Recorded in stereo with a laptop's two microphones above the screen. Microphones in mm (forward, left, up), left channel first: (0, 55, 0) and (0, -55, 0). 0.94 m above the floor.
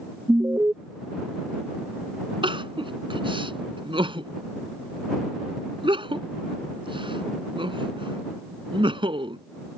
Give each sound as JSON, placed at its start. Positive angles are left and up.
{"t": 0.3, "sound": "an alarm", "side_deg": -25}
{"t": 2.4, "sound": "crying", "side_deg": -50}